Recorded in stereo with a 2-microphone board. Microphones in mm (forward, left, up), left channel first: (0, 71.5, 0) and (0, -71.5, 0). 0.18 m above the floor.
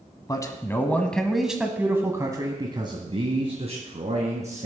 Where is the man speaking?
25° left (ahead or behind), 1.3 m; by 4.7 s 55° right (ahead or behind), 2 m.